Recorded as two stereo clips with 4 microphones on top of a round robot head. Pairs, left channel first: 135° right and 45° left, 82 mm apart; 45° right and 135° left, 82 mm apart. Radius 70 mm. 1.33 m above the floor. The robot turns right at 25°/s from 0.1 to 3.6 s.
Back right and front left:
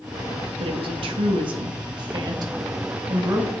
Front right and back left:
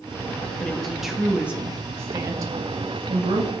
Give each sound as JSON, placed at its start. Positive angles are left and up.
{"t": 0.6, "sound": "a woman speaking", "azimuth_deg": 35, "distance_m": 1.9}